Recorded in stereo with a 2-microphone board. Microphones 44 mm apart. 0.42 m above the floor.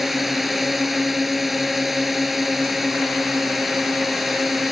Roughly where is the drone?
Centre.